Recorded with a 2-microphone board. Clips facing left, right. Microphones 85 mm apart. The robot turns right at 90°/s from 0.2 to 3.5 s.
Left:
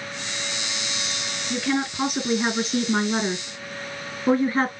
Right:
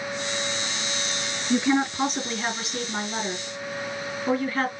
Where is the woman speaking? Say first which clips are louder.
Right 3 dB; 35° right, 1.8 m; by 4.7 s 145° left, 1.8 m.